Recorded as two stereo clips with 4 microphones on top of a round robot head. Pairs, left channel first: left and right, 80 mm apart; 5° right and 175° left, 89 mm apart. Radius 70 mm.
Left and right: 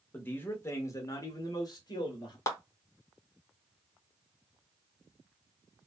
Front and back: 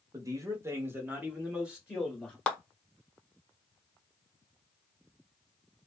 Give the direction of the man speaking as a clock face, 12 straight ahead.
7 o'clock.